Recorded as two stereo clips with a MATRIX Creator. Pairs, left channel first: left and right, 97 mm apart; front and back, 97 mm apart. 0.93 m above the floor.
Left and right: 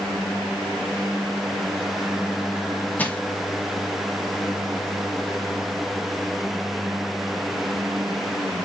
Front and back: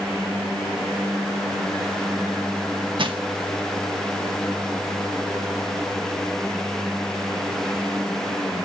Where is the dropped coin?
I don't hear a dropped coin.